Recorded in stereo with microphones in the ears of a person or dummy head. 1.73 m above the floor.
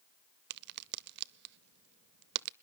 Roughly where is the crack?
Right.